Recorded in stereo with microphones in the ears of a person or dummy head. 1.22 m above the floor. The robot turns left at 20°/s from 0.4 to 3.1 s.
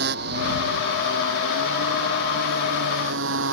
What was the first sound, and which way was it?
A motorcycle, 60° right.